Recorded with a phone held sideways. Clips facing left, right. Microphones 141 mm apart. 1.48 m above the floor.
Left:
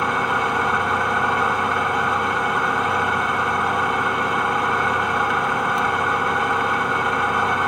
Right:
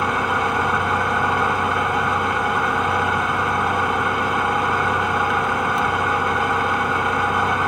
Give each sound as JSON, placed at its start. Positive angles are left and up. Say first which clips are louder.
{"t": 0.0, "sound": "an engine running", "louder": "right 1 dB", "side_deg": 0, "distance_m": 1.0}